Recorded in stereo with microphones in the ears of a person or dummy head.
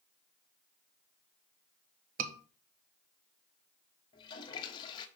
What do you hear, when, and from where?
2.2 s a scream: 50° right (ahead or behind), 1.6 m
4.1 s a toilet flushing: 25° left (ahead or behind), 1.1 m